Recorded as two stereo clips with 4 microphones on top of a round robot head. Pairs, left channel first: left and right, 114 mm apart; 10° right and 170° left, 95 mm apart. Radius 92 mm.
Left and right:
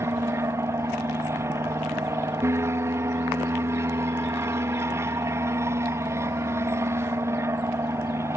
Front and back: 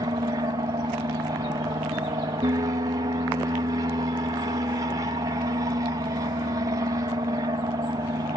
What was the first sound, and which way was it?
An aircraft, 150° right.